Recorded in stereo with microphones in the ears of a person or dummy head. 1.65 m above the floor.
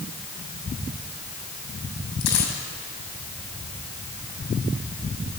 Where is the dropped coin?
65° left (ahead or behind), 7 m.